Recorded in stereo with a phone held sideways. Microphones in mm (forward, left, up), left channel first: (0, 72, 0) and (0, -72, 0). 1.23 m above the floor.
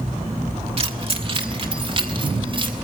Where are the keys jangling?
40° right (ahead or behind), 1.4 m.